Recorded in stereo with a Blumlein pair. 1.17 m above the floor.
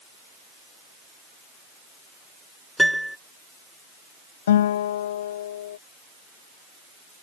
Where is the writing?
No writing in this recording.